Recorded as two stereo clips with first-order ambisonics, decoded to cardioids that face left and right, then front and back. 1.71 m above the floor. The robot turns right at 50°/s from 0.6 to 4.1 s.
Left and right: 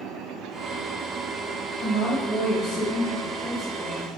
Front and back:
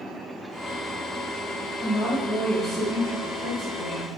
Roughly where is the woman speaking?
Ahead left.